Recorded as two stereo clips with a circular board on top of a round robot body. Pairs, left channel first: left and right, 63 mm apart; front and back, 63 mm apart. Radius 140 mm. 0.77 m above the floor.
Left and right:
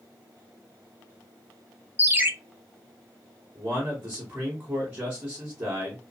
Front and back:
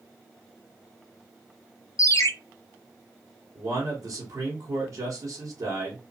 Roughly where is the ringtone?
Ahead right.